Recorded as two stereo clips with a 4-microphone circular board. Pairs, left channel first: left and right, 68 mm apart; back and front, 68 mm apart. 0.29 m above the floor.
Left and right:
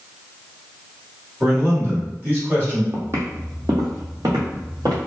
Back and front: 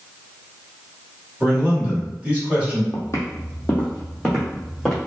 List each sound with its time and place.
1.4 s a man speaking: 55° right, 1.4 m
2.9 s footsteps: 145° right, 0.7 m; by 5.0 s 90° right, 1.5 m